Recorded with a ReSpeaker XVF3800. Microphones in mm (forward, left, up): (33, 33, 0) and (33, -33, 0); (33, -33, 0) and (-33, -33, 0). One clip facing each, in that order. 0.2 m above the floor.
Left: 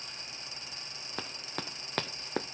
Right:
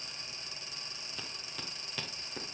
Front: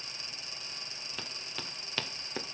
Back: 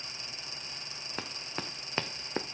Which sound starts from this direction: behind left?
Running footsteps, at 1.2 s.